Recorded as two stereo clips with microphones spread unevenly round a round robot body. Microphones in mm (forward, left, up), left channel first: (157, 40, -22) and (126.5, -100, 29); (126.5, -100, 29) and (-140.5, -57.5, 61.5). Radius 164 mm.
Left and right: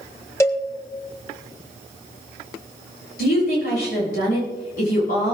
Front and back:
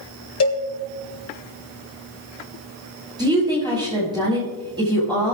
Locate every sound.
0.4 s a cowbell: 20° left, 1.8 m
3.2 s a woman speaking: 95° left, 7.5 m